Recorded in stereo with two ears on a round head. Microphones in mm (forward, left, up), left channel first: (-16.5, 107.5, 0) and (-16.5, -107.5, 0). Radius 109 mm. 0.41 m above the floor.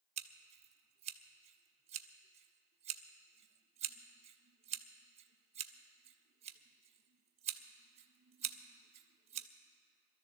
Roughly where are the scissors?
Right.